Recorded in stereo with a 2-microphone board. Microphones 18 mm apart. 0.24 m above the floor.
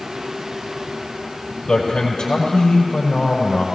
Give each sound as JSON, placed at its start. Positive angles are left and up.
{"t": 1.7, "sound": "a man speaking", "side_deg": 75, "distance_m": 5.5}